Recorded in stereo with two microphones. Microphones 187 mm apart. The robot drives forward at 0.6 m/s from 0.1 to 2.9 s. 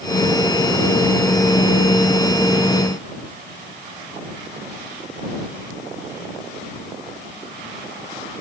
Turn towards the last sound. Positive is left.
No sound to turn to.